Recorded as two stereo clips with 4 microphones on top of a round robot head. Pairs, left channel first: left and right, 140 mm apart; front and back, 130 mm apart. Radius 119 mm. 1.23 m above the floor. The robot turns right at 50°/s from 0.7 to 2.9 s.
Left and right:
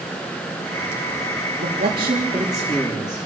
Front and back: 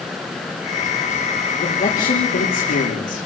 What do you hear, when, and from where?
1.6 s a man speaking: 50° right, 3.5 m; by 3.3 s 15° left, 3.5 m